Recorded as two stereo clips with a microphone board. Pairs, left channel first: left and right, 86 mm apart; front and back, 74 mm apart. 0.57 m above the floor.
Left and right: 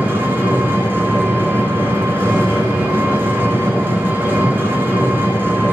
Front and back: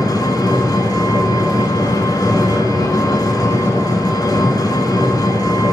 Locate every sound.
0.0 s an engine running: 25° right, 3.5 m